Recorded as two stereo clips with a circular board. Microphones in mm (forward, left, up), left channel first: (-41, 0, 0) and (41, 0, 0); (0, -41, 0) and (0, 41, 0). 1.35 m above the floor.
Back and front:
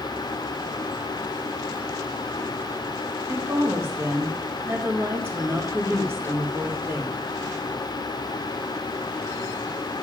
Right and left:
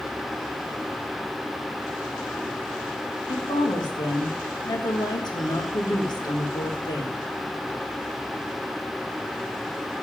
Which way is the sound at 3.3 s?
60° right.